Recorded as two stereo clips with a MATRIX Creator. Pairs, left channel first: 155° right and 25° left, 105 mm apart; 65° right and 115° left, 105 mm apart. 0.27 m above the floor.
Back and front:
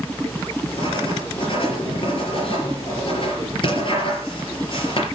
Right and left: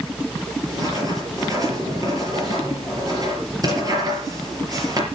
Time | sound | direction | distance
0.7 | writing | 165° left | 5 m